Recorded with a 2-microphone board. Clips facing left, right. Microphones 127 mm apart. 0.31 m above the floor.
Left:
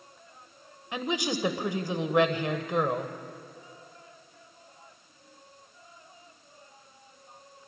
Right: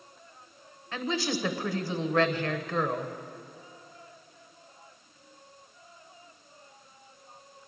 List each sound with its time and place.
0.9 s a woman speaking: 20° left (ahead or behind), 1.1 m